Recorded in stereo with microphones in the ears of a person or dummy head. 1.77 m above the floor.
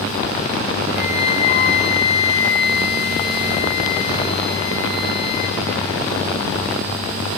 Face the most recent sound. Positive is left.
turn(degrees=55)  # may be behind; listen again after turning